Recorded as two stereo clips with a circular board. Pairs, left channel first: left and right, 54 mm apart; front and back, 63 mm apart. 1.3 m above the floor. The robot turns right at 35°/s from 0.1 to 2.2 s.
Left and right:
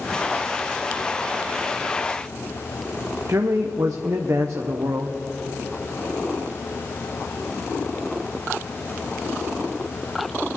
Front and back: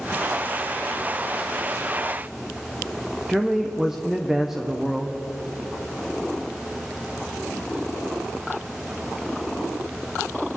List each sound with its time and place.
3.3 s a man speaking: 100° right, 0.6 m